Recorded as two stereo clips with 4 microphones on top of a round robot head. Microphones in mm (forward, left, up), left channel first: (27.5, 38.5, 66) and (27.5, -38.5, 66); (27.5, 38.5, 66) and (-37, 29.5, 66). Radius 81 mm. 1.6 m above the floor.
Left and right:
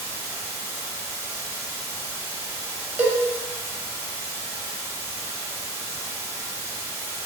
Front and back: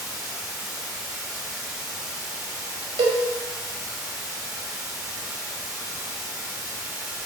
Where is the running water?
95° right, 1.2 m.